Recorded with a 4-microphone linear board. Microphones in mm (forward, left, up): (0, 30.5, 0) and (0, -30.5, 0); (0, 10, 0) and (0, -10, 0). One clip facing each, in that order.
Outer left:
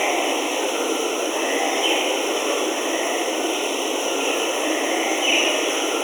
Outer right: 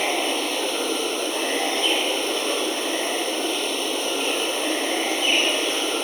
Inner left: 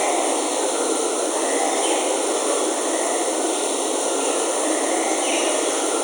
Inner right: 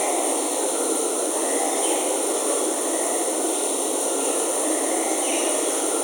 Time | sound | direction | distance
0.0 | running water | 15° left (ahead or behind) | ?